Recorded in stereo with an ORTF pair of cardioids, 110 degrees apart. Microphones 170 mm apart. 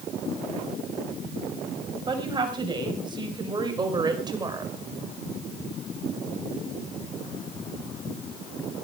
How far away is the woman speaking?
About 6 m.